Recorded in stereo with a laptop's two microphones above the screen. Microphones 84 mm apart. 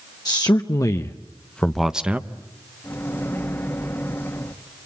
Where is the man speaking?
50° left (ahead or behind), 1.1 m; by 2.3 s 20° right (ahead or behind), 0.8 m.